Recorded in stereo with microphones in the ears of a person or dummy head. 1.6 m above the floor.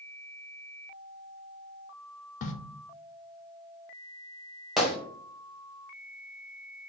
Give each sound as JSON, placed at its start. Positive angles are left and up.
{"t": 2.4, "sound": "a crack", "side_deg": 50, "distance_m": 0.5}
{"t": 4.8, "sound": "a gunshot", "side_deg": 5, "distance_m": 1.0}